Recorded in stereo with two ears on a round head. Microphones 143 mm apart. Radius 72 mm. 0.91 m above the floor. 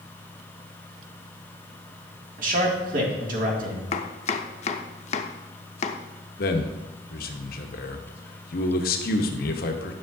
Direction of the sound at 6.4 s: 65° left (ahead or behind).